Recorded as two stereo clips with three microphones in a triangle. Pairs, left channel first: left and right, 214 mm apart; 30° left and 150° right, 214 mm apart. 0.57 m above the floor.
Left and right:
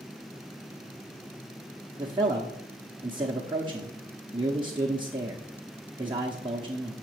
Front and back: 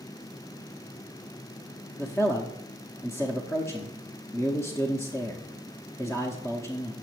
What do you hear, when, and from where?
2.0 s a man speaking: 40° right, 0.7 m